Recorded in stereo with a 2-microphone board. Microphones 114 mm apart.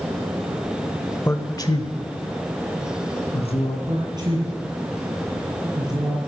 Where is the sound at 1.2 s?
20° left (ahead or behind), 1.0 m; by 3.8 s 60° left (ahead or behind), 3 m.